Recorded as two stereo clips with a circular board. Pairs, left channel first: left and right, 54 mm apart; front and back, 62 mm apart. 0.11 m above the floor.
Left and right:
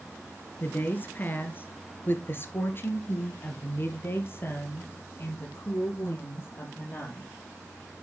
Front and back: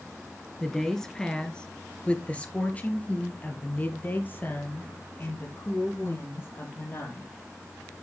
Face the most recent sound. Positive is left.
turn(degrees=50)